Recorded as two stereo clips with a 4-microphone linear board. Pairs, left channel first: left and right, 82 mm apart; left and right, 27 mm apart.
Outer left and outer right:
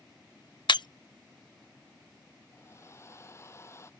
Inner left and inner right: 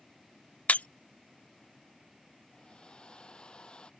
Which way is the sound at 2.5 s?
35° left (ahead or behind).